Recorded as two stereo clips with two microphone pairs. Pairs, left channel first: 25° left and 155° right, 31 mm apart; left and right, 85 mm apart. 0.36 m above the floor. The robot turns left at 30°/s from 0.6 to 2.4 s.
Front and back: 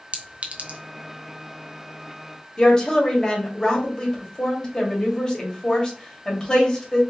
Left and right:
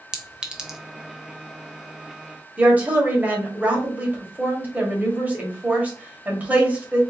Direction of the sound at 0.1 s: 165° right.